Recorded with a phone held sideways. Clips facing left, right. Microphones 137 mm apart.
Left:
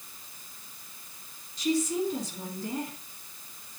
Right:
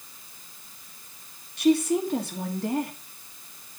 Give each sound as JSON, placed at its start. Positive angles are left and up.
{"t": 1.6, "sound": "a woman speaking", "side_deg": -65, "distance_m": 1.7}